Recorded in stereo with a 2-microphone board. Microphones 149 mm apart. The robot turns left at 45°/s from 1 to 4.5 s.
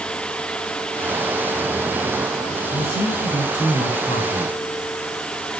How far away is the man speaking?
About 7 m.